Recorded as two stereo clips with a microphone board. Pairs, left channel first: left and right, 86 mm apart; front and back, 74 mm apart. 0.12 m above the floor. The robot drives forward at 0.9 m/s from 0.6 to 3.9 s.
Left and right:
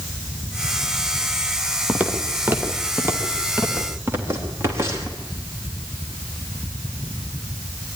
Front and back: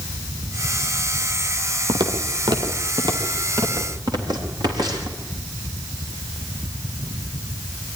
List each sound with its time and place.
1.9 s footsteps: 165° right, 2.5 m; by 5.2 s 145° right, 4.5 m